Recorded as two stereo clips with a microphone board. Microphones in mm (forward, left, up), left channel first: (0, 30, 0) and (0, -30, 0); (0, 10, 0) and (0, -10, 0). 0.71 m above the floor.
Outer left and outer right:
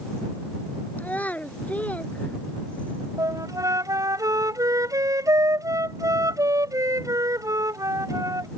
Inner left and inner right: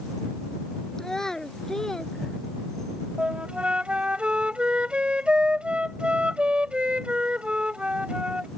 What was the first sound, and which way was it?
A child speaking, 25° left (ahead or behind).